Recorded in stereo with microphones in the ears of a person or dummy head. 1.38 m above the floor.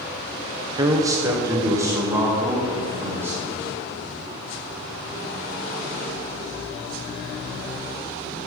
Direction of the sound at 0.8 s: 20° right (ahead or behind).